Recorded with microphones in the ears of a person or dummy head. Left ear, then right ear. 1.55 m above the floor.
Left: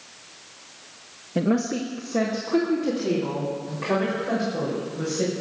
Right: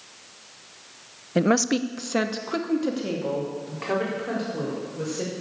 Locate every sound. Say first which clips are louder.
1.4 s a woman speaking: right 3 dB; 35° right (ahead or behind), 0.8 m; by 5.3 s 30° right (ahead or behind), 6 m